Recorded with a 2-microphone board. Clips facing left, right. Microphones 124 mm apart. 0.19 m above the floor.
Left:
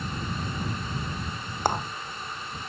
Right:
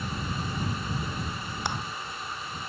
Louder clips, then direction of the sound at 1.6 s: Left 8 dB; 45° left (ahead or behind).